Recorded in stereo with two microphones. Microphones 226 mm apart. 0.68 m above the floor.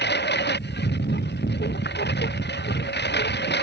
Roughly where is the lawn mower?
Left.